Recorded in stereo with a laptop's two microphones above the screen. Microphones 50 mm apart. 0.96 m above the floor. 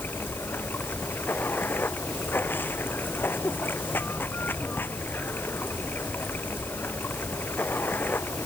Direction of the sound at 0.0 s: 45° left (ahead or behind).